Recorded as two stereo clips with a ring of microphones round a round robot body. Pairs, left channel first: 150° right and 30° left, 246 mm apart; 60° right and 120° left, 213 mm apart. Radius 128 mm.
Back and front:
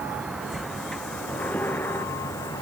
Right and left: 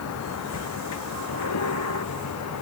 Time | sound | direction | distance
0.0 | a vehicle | 55° right | ?